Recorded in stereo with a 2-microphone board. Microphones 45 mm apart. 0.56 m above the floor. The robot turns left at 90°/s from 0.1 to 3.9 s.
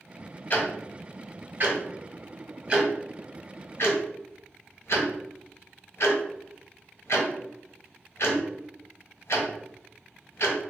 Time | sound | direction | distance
0.5 | ticking | 50° left (ahead or behind) | 1.4 m